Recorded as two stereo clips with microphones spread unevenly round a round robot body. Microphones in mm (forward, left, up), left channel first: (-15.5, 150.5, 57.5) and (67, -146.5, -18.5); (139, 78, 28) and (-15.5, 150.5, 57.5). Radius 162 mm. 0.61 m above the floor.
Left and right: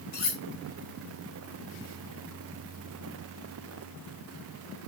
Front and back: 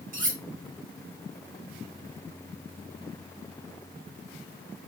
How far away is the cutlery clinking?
About 1.7 m.